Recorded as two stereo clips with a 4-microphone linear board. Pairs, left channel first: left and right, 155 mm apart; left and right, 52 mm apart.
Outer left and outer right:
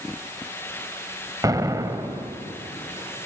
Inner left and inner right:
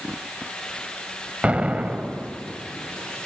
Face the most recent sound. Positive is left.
turn(degrees=-25)  # may be behind; listen again after turning